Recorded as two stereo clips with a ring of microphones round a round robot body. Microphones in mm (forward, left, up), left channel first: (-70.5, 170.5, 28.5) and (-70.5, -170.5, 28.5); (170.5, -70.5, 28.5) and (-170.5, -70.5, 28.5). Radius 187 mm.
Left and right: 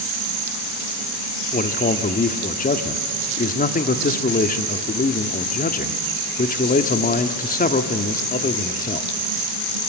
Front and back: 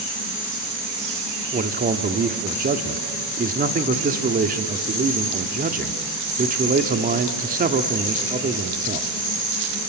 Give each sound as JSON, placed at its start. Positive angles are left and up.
{"t": 1.5, "sound": "a man speaking", "azimuth_deg": 135, "distance_m": 1.2}